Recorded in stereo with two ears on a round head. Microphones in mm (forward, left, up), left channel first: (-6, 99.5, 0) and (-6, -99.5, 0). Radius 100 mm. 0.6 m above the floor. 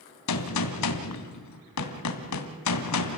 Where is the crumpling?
I don't hear crumpling.